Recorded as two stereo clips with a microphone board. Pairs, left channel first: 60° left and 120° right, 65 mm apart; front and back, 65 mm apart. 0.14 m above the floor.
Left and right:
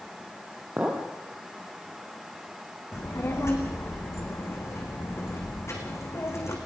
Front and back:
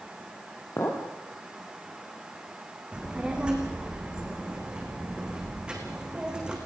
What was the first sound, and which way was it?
A clink, 50° right.